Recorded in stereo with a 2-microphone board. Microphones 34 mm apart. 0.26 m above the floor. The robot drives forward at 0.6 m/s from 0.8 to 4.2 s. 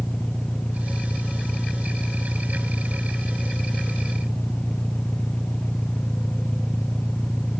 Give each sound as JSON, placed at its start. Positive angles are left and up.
{"t": 0.0, "sound": "an engine running", "side_deg": 40}